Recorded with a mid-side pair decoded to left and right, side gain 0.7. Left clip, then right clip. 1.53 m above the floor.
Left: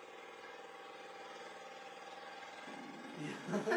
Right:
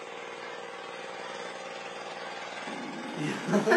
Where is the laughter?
50° right, 0.5 m.